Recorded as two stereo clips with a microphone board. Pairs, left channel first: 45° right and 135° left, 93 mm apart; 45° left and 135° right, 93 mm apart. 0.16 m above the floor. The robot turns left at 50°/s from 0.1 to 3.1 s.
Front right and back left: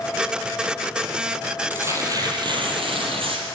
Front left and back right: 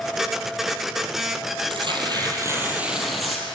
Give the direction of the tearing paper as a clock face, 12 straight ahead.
5 o'clock.